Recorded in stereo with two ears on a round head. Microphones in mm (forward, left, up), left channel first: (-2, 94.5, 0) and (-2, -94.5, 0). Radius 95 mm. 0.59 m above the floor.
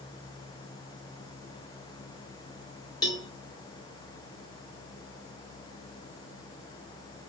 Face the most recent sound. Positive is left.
turn(degrees=20)  # may be behind; listen again after turning